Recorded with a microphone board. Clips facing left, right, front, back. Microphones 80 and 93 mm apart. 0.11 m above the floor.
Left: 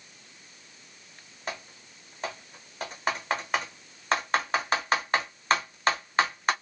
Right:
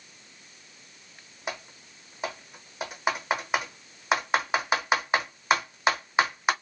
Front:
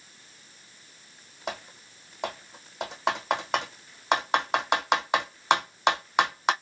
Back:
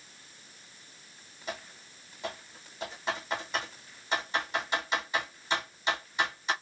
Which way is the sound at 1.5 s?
10° right.